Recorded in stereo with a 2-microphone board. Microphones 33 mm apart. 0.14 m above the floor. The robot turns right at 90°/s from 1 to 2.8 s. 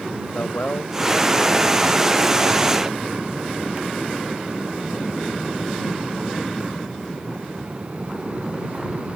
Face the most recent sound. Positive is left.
turn(degrees=-95)